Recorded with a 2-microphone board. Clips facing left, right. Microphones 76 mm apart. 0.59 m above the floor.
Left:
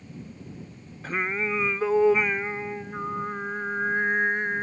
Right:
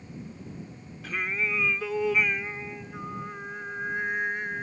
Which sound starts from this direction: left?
Singing, at 1.0 s.